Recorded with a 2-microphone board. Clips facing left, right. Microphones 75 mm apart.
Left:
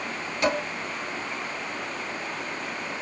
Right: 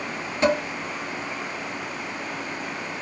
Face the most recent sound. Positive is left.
turn(degrees=-35)  # may be behind; listen again after turning